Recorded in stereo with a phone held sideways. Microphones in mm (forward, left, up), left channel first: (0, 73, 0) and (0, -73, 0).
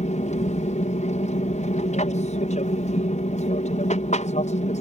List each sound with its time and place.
0.0 s an aircraft: 55° left (ahead or behind)